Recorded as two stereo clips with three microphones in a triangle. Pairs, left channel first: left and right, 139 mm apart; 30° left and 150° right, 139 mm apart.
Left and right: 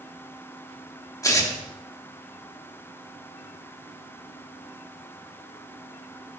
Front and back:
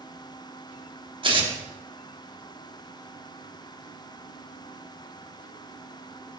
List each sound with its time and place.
1.2 s tearing paper: 160° left, 1.6 m